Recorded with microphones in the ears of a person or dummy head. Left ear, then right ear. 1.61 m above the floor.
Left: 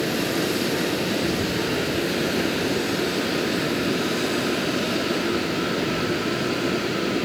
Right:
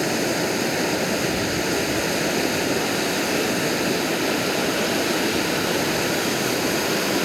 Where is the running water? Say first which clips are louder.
Right 2 dB; 45° right (ahead or behind).